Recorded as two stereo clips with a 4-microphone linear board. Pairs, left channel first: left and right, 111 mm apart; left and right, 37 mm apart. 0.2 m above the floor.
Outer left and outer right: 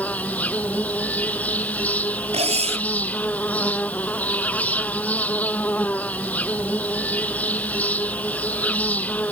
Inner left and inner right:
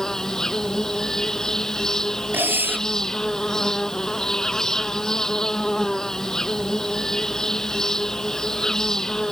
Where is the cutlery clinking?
65° right (ahead or behind).